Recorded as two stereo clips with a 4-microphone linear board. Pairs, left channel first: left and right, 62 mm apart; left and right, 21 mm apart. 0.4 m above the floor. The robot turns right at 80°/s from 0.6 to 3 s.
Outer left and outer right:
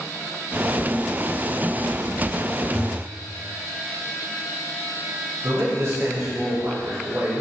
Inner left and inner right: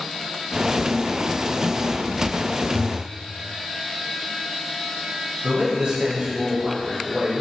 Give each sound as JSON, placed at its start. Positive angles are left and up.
{"t": 2.7, "sound": "a thud", "side_deg": 30, "distance_m": 3.0}
{"t": 5.4, "sound": "a man speaking", "side_deg": -50, "distance_m": 2.5}